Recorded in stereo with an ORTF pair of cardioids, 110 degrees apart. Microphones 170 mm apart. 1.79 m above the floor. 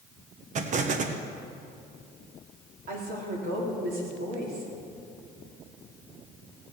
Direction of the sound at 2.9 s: 65° right.